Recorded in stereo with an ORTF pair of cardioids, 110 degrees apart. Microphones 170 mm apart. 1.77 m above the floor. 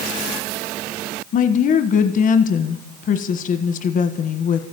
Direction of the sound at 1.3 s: 55° left.